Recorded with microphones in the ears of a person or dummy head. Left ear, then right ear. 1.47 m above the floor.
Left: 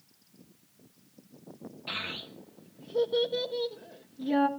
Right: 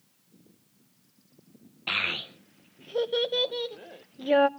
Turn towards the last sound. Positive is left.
turn(degrees=-40)  # may be behind; listen again after turning